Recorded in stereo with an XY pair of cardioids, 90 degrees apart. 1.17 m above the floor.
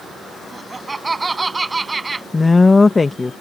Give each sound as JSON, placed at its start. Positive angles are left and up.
{"t": 0.5, "sound": "laughter", "azimuth_deg": -25}
{"t": 2.3, "sound": "a woman speaking", "azimuth_deg": 30}